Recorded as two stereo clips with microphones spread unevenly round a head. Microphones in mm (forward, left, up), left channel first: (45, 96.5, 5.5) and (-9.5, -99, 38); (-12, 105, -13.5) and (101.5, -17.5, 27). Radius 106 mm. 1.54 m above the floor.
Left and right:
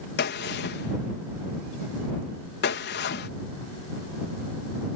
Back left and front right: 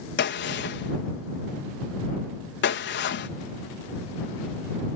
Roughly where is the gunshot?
Behind left.